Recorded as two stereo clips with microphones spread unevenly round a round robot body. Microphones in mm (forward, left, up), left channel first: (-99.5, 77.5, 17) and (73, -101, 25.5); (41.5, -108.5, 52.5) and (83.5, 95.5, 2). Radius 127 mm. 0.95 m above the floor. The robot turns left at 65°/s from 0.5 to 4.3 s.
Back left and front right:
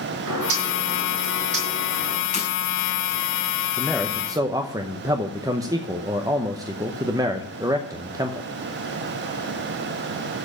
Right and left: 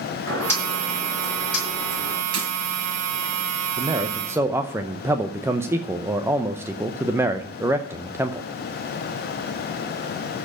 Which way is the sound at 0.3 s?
25° right.